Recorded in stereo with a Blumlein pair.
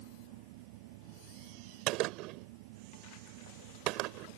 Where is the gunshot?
40° right.